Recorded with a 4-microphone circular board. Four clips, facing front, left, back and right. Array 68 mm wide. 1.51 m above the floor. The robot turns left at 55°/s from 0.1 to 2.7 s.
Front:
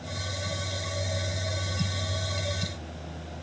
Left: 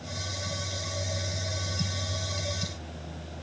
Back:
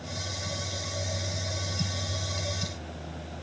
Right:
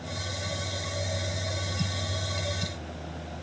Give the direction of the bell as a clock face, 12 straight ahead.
I don't hear a bell.